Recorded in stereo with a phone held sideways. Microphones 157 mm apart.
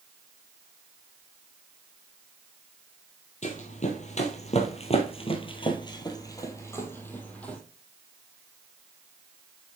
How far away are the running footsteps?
About 1.6 m.